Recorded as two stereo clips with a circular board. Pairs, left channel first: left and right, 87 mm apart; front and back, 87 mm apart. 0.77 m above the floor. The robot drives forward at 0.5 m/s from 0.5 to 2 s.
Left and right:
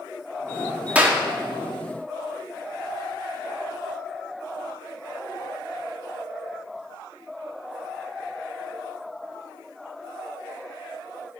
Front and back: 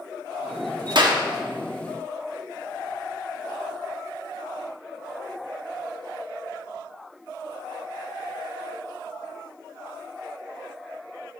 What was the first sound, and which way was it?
A clap, 160° right.